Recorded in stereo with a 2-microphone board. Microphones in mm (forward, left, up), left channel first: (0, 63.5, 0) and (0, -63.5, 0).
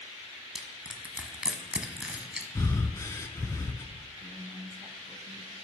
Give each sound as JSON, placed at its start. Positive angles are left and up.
{"t": 0.6, "sound": "crushing", "side_deg": -5, "distance_m": 1.0}
{"t": 2.5, "sound": "breathing", "side_deg": 25, "distance_m": 0.6}
{"t": 4.2, "sound": "a woman speaking", "side_deg": -15, "distance_m": 1.3}